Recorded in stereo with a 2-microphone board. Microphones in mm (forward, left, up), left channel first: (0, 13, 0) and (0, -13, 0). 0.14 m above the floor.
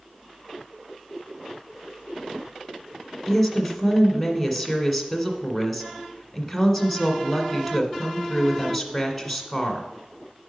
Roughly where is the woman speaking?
Centre.